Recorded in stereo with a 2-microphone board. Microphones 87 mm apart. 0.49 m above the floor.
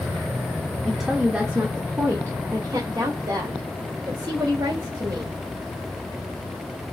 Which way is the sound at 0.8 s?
Centre (ahead or behind).